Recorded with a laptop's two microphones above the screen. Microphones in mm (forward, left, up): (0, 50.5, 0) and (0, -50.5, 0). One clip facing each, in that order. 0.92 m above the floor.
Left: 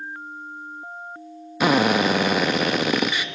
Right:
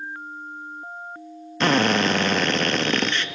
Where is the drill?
10° left (ahead or behind), 0.8 m.